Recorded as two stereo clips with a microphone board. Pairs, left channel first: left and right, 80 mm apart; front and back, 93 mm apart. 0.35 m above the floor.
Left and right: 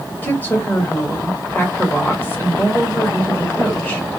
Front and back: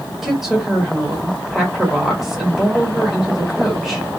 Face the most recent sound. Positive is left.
turn(degrees=100)